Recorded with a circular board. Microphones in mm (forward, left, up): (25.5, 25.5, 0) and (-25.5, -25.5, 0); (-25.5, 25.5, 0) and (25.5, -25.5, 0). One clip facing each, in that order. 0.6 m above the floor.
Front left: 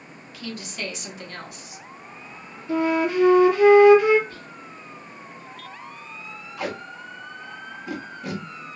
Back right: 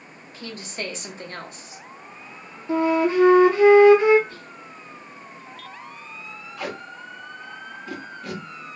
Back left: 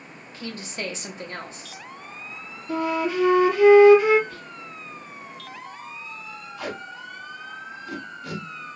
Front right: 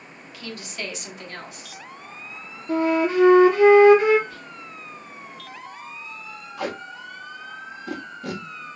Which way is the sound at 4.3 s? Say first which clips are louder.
Even, even; 130° right.